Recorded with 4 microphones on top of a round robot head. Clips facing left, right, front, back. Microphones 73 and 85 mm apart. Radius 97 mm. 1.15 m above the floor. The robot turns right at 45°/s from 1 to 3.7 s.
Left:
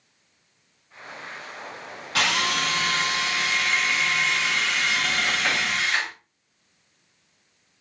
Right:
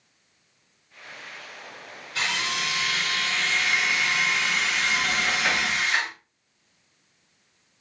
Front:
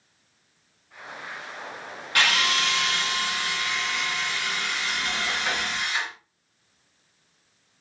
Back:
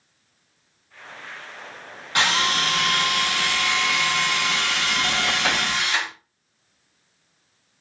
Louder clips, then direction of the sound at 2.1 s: Left 4 dB, back 2 dB; 115° left.